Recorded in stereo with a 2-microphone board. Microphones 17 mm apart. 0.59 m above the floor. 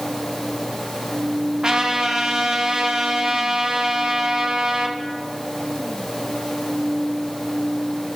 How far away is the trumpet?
About 0.9 m.